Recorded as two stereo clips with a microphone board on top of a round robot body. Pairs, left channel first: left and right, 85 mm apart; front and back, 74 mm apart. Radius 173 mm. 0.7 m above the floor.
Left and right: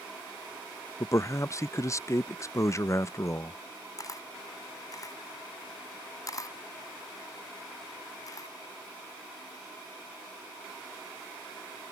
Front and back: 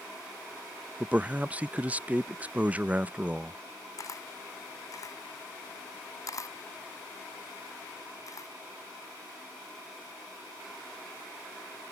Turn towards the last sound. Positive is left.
turn(degrees=40)